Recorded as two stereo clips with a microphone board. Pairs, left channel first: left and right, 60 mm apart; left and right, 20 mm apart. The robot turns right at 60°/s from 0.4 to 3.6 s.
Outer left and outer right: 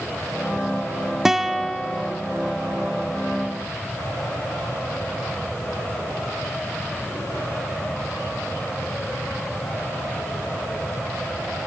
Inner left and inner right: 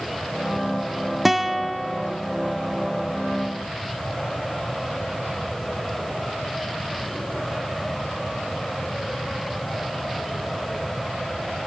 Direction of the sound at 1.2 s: 10° right.